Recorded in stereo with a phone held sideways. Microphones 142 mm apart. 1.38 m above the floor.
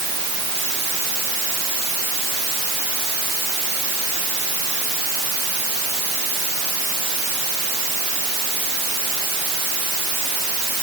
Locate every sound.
Only background noise.